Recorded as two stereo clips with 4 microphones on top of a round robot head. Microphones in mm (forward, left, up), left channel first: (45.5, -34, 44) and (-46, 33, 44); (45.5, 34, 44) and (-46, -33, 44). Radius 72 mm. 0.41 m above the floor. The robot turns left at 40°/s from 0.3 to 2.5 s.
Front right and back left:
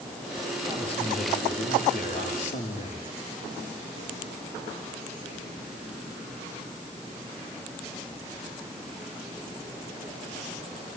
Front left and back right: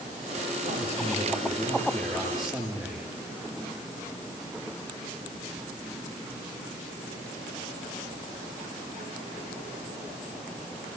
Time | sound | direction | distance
0.6 | a man speaking | 15° left | 9 m